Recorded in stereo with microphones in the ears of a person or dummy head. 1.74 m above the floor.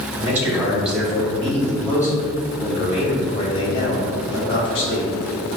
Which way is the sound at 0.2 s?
15° right (ahead or behind).